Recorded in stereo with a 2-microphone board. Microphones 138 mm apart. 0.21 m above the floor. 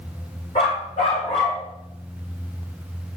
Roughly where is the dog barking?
Left.